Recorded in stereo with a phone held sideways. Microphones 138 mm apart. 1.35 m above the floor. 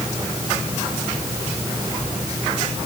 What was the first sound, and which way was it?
Only background noise.